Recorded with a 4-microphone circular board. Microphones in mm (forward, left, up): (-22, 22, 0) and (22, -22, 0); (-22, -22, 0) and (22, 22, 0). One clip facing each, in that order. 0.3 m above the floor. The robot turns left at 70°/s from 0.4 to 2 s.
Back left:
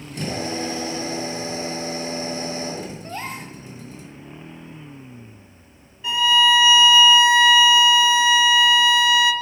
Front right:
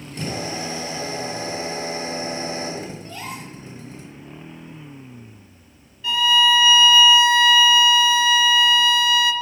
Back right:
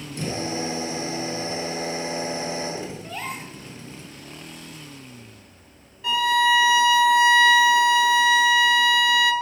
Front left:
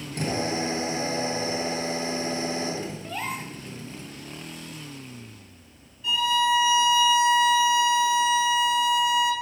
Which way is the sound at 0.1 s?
45° left.